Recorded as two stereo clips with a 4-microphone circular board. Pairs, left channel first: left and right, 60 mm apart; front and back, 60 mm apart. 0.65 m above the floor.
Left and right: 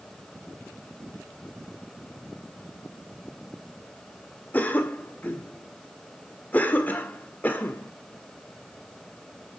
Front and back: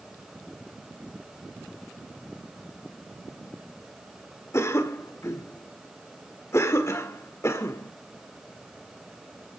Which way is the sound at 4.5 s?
30° left.